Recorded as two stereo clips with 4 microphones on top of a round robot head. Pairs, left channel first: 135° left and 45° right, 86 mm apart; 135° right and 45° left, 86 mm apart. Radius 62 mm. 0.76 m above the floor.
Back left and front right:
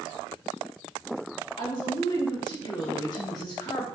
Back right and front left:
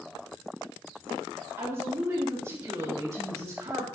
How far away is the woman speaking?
About 4.5 m.